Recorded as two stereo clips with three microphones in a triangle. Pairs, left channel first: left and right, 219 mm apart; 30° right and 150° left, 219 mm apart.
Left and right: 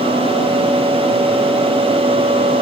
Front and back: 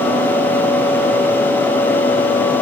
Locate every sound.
Only background noise.